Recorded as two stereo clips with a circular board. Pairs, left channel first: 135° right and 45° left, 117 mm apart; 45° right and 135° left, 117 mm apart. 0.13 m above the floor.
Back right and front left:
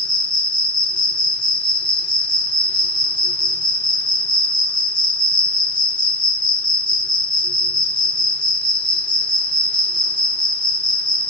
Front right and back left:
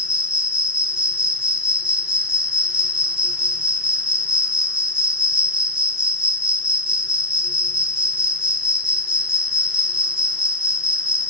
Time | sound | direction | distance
0.0 | an insect | 145° right | 1.4 m